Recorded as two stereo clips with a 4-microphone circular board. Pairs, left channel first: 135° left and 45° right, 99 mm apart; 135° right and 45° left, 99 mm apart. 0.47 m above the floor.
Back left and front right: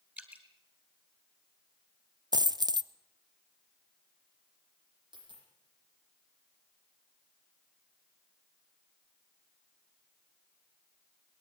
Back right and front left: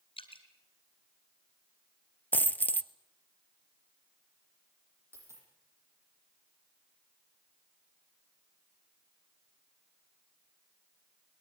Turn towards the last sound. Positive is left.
turn(degrees=-20)